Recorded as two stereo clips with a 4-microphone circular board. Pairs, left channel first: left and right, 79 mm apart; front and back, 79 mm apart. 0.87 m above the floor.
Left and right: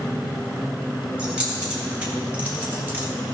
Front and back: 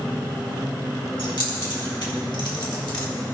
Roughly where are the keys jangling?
Ahead.